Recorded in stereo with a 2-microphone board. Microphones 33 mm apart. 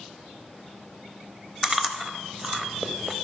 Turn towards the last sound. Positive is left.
turn(degrees=-15)  # may be behind; listen again after turning